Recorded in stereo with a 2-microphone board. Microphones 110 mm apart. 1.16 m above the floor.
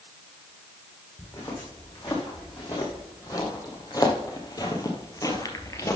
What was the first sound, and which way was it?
Footsteps, 30° left (ahead or behind).